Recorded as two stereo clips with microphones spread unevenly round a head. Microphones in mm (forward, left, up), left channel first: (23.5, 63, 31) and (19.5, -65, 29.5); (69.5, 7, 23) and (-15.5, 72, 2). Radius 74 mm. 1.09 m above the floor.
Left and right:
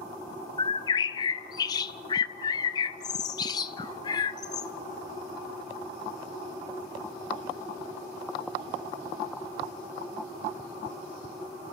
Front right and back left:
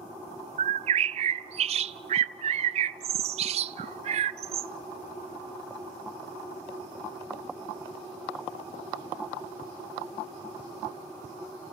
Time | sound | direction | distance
0.6 | a bird | 140° left | 0.6 m